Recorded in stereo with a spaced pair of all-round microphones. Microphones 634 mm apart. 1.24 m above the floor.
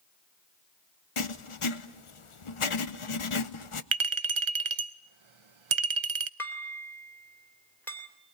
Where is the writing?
55° left (ahead or behind), 0.9 m.